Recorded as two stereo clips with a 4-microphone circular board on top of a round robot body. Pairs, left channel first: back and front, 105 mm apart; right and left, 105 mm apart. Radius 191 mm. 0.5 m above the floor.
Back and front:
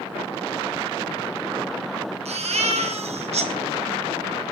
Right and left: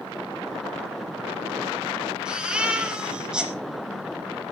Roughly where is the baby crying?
Ahead.